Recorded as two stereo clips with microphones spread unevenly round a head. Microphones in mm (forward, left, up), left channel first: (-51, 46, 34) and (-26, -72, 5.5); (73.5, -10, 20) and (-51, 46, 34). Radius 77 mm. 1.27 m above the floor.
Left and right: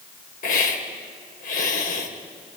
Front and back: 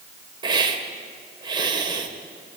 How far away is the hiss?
About 3 m.